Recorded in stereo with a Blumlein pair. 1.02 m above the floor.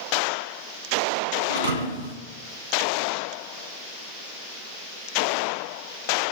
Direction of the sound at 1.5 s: 70° right.